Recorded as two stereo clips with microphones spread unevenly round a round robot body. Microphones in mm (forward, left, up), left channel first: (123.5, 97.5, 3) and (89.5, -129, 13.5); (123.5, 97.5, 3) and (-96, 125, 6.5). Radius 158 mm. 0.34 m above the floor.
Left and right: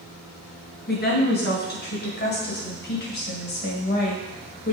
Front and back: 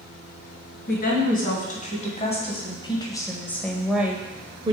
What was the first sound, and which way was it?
A woman speaking, 40° left.